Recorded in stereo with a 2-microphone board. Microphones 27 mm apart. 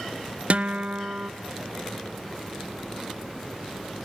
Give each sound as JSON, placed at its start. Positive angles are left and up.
{"t": 0.5, "sound": "a guitar", "side_deg": -55, "distance_m": 0.6}